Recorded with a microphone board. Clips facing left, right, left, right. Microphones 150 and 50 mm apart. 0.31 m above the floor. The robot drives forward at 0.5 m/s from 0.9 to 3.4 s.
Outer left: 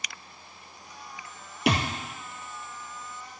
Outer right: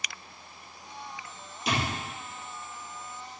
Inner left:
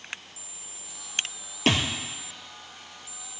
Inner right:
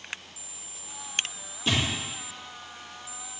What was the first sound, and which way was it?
A thud, 75° left (ahead or behind).